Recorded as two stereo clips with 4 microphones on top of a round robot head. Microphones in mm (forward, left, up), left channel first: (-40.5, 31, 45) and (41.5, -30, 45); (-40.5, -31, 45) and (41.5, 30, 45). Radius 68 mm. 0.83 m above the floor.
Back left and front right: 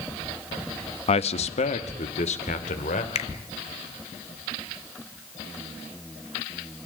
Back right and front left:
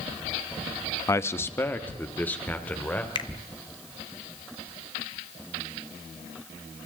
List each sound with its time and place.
1.1 s a man speaking: 155° left, 0.8 m; by 3.0 s 140° left, 3 m
3.1 s a finger snap: 170° left, 1.2 m